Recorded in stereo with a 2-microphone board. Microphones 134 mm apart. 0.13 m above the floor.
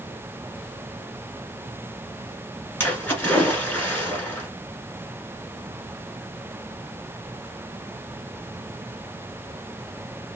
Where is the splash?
15° left (ahead or behind), 1.4 m.